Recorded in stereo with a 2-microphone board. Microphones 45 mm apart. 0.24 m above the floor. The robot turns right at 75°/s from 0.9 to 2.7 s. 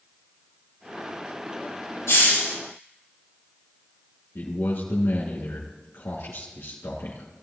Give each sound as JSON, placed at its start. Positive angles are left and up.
{"t": 2.1, "sound": "a hiss", "azimuth_deg": 105, "distance_m": 3.0}
{"t": 4.3, "sound": "a man speaking", "side_deg": 65, "distance_m": 2.5}